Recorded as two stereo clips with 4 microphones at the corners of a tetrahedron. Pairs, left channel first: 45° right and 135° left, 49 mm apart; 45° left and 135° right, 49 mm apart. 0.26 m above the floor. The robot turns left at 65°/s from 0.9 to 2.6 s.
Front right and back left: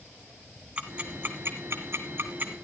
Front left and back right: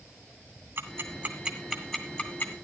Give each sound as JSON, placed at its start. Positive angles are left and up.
{"t": 0.8, "sound": "ticking", "azimuth_deg": -160, "distance_m": 1.9}